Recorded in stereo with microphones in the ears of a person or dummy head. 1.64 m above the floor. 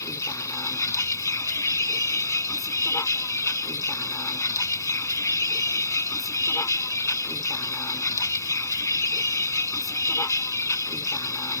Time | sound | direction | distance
0.0 | a vehicle | 15° left (ahead or behind) | ?